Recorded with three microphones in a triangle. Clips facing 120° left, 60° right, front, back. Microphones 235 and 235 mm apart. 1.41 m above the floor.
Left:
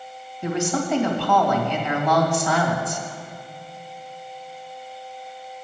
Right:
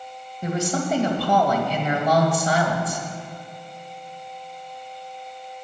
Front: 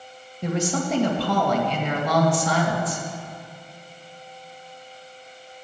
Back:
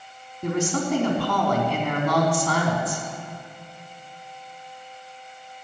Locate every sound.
0.4 s a woman speaking: 5° right, 2.5 m